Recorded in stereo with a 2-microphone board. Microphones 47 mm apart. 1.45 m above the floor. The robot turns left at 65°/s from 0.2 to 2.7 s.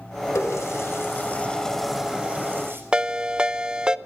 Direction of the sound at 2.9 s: 20° right (ahead or behind).